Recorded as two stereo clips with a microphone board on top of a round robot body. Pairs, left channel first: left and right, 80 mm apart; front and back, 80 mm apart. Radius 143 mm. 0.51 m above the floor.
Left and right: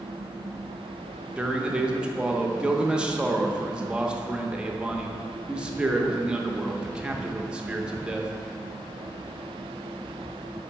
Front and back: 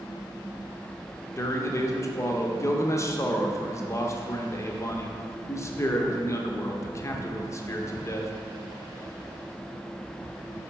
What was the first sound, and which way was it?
A man speaking, 20° right.